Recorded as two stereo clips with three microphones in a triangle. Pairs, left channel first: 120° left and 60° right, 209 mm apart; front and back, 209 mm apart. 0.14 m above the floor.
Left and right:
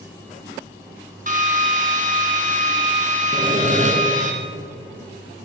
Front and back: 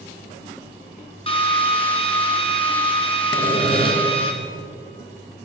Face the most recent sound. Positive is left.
turn(degrees=-45)